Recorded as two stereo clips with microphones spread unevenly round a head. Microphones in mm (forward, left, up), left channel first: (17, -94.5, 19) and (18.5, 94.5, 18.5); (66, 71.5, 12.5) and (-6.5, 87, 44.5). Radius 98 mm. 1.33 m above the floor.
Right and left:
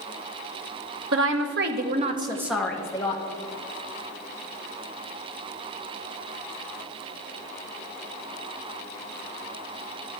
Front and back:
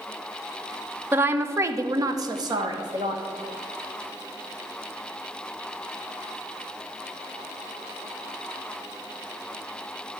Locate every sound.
1.1 s a woman speaking: 115° left, 0.9 m; by 3.2 s 155° right, 0.8 m